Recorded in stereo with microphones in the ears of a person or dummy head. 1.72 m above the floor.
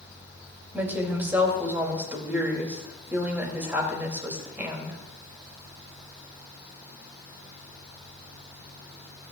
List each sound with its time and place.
0.7 s a woman speaking: 10° right (ahead or behind), 3.5 m